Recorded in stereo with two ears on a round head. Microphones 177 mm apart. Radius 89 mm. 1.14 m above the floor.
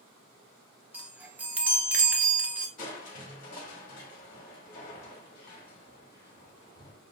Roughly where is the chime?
Centre.